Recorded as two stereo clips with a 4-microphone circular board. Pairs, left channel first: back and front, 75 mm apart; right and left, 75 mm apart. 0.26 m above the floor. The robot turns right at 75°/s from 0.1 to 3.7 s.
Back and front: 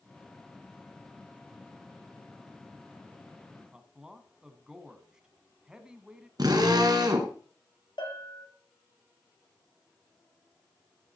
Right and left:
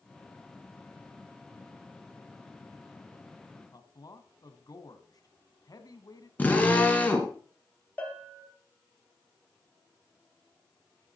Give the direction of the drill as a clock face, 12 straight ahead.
1 o'clock.